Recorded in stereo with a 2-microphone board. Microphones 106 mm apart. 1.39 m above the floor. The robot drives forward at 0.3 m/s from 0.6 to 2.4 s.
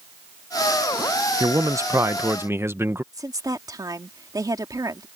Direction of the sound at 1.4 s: 35° right (ahead or behind).